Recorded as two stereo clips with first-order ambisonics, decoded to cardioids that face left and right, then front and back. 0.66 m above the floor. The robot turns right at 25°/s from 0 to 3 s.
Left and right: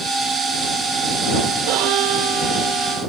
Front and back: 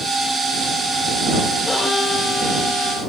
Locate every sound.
1.7 s a violin: 80° right; by 3.1 s 45° right